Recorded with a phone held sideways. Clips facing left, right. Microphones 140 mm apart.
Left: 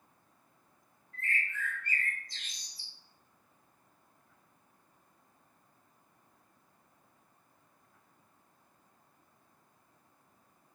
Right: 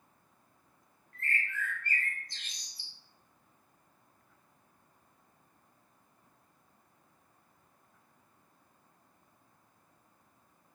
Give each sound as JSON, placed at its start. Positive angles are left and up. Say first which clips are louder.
{"t": 1.1, "sound": "a bird", "louder": "right 1 dB", "side_deg": -60, "distance_m": 2.0}